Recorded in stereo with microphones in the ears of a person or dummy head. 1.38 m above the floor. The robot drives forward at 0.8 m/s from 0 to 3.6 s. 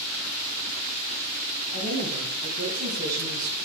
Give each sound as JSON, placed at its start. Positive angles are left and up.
{"t": 1.7, "sound": "a woman speaking", "side_deg": -65, "distance_m": 8.0}